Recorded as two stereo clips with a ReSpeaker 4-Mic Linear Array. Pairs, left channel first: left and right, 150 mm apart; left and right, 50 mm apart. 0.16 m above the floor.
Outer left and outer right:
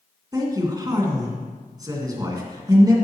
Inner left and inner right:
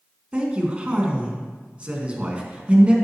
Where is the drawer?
I don't hear a drawer.